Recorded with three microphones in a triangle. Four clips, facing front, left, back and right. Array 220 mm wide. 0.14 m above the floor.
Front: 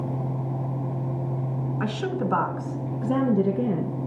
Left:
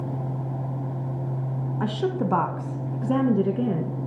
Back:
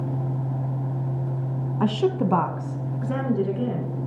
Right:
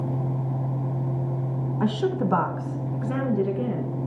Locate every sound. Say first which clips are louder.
1.8 s a woman speaking: right 2 dB, back 7 dB; 175° right, 1.2 m; by 4.1 s 40° left, 1.6 m